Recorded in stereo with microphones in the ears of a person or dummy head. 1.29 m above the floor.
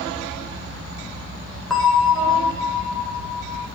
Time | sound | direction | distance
1.7 | a bell | centre (ahead or behind) | 1.9 m